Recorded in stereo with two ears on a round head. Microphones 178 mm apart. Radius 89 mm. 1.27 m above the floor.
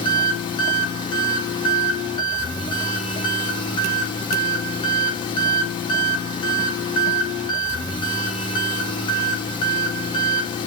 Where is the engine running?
25° left (ahead or behind), 1.0 m.